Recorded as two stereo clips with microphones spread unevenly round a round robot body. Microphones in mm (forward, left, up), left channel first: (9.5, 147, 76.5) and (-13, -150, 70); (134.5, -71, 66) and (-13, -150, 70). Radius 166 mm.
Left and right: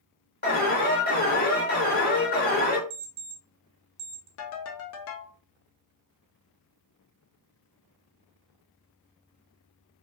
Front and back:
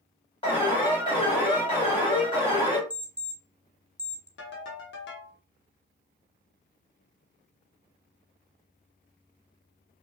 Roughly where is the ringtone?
Ahead left.